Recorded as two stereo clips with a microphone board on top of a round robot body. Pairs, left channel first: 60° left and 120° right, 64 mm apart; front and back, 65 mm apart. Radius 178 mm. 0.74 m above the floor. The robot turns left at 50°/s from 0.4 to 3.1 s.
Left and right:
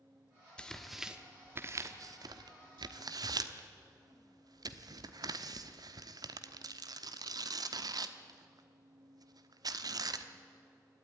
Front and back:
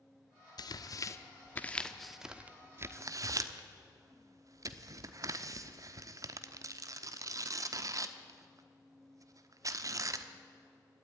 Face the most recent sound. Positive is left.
turn(degrees=-140)